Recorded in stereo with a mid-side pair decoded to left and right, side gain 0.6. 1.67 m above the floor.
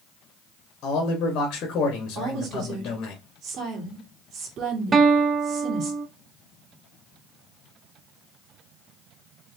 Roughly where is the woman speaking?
Ahead right.